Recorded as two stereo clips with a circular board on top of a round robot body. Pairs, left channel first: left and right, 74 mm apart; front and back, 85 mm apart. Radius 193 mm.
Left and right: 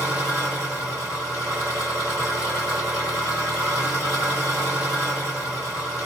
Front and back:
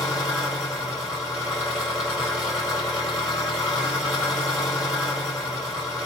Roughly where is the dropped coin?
No dropped coin in this recording.